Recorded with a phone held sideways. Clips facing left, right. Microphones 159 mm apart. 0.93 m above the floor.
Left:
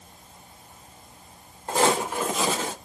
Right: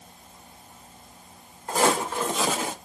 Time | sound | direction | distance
1.7 | footsteps | 30° left (ahead or behind) | 1.2 m